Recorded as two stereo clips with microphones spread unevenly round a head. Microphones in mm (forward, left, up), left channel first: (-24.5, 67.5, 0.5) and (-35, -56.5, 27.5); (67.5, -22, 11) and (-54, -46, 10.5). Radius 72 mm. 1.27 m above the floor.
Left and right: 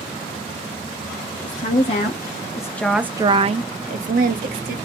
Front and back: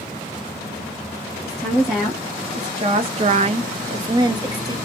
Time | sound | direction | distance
1.4 | a woman speaking | 105° left | 1.3 m